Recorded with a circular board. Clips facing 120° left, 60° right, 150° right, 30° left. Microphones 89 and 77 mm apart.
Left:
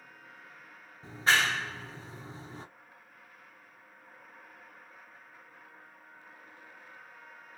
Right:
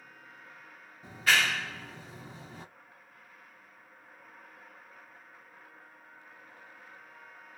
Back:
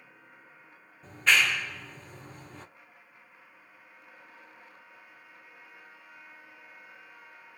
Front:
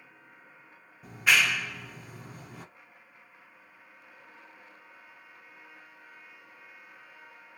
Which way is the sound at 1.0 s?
105° left.